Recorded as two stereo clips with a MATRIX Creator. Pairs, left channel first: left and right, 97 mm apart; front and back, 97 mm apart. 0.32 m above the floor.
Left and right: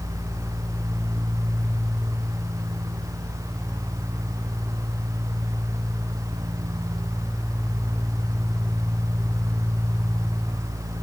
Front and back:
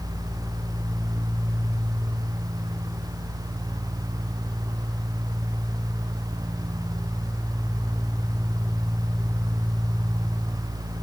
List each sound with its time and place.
Only background noise.